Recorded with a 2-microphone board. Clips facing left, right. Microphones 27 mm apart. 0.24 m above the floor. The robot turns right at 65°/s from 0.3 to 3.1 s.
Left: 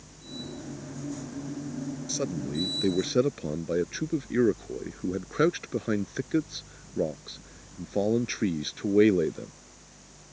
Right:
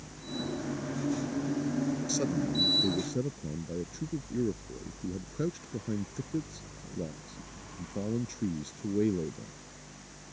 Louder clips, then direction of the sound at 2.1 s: Right 1 dB; 5° left (ahead or behind).